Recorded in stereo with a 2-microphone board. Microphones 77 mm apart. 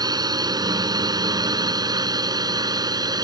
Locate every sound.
0.0 s a drone: 65° right (ahead or behind); by 3.2 s 70° right (ahead or behind)